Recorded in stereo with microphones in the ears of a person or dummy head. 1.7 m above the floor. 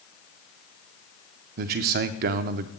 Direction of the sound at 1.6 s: 50° right (ahead or behind).